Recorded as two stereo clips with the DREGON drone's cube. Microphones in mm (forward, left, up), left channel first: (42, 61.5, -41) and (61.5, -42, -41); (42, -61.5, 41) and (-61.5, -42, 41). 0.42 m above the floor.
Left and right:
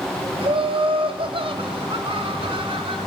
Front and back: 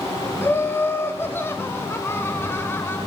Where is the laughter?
75° right, 1.9 m.